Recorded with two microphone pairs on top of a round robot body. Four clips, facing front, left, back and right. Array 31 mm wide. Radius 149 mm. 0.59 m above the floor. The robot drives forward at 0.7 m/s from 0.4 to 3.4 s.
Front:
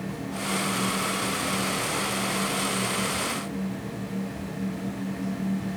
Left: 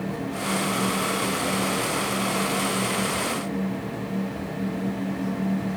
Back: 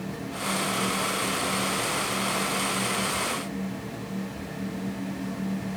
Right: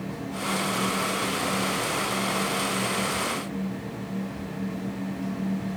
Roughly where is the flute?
I don't hear a flute.